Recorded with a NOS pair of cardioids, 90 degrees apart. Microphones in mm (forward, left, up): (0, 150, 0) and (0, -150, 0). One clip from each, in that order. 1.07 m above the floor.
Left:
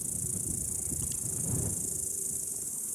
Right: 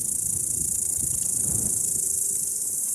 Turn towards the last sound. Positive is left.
turn(degrees=-60)